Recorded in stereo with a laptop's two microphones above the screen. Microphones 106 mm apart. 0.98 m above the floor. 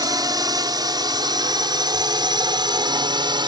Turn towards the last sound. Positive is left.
turn(degrees=-40)  # may be behind; listen again after turning